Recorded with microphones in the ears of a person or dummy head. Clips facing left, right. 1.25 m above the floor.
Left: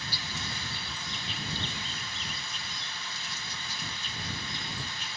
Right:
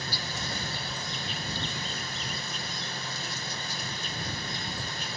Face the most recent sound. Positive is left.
turn(degrees=-35)  # may be behind; listen again after turning